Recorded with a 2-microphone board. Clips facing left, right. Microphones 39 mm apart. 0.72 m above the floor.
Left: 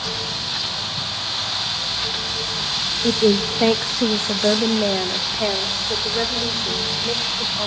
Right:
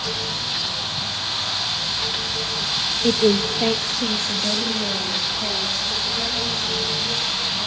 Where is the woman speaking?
10° right (ahead or behind), 0.6 m; by 7.7 s 65° left (ahead or behind), 3 m.